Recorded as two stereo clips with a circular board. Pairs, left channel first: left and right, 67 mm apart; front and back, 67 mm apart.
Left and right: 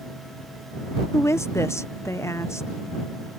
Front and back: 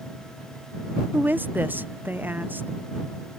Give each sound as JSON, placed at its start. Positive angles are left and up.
{"t": 1.1, "sound": "a woman speaking", "azimuth_deg": 125}